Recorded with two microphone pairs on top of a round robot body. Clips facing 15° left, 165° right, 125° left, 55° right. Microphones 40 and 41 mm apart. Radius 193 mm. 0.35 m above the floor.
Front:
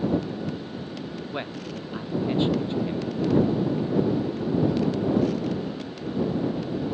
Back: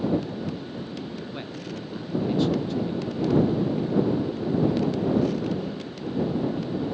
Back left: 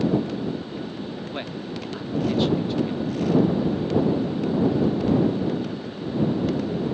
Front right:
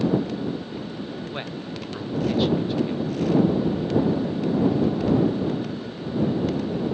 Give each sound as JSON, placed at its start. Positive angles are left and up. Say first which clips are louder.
{"t": 1.3, "sound": "a man speaking", "louder": "front 2 dB, back left 1 dB", "azimuth_deg": 45}